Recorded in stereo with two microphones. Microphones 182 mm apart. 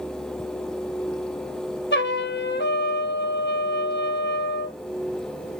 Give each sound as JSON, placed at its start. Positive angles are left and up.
{"t": 1.9, "sound": "a trumpet", "side_deg": 85, "distance_m": 0.7}